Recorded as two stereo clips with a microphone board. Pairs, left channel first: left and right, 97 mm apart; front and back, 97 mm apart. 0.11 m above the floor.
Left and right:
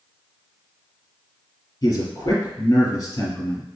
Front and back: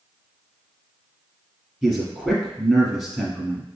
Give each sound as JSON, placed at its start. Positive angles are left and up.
{"t": 1.8, "sound": "a man speaking", "azimuth_deg": 85, "distance_m": 1.4}